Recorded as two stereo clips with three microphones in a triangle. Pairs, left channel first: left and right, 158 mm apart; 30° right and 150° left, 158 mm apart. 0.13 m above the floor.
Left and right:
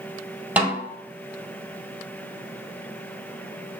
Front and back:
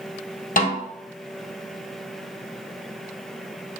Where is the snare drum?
10° right, 1.4 m.